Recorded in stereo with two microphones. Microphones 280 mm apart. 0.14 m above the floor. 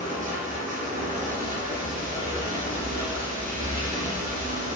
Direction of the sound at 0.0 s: 30° right (ahead or behind).